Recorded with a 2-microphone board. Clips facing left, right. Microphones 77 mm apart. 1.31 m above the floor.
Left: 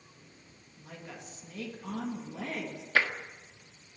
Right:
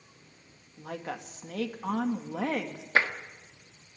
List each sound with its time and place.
0.8 s a woman speaking: 80° right, 2 m
3.0 s tapping: 25° right (ahead or behind), 1.5 m